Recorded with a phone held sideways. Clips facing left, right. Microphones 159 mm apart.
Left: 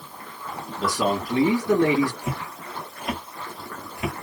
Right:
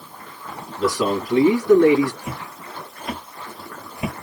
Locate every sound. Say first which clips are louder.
0.8 s a man speaking: right 3 dB; 30° left (ahead or behind), 1.9 m
2.2 s footsteps: left 1 dB; 25° left (ahead or behind), 1.5 m; by 4.1 s 25° right (ahead or behind), 1.3 m